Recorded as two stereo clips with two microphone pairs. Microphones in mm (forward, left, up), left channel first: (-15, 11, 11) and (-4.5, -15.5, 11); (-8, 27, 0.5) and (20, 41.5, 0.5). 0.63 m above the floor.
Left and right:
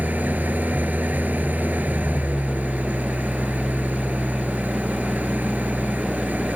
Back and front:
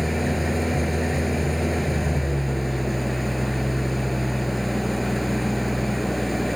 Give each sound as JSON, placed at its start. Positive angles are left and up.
{"t": 0.0, "sound": "an engine running", "azimuth_deg": -60}